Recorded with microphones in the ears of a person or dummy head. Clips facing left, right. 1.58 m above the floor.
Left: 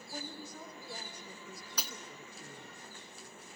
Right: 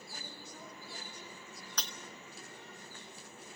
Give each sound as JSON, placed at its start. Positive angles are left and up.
{"t": 0.1, "sound": "a woman speaking", "side_deg": 55, "distance_m": 5.5}
{"t": 1.8, "sound": "breaking glass", "side_deg": 5, "distance_m": 1.4}